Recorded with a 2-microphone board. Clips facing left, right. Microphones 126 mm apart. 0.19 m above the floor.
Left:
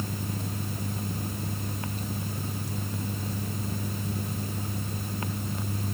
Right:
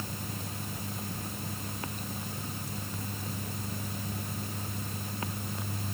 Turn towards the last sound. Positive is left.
No sound to turn to.